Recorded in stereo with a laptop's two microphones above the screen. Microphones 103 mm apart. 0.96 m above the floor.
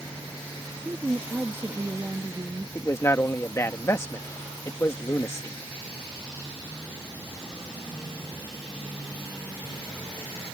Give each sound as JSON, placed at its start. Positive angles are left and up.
{"t": 0.8, "sound": "a woman speaking", "side_deg": -25}
{"t": 2.8, "sound": "a man speaking", "side_deg": 25}